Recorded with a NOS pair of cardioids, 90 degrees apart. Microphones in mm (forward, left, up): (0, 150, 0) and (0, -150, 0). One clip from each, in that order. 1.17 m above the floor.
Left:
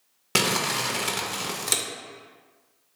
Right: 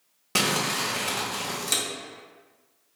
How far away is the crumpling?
About 0.5 m.